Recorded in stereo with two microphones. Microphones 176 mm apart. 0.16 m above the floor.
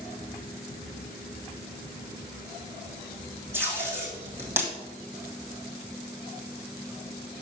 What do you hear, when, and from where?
3.5 s tape being pulled: 15° right (ahead or behind), 3 m